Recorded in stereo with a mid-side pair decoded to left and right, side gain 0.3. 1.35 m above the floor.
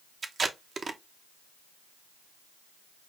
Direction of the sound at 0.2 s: 55° right.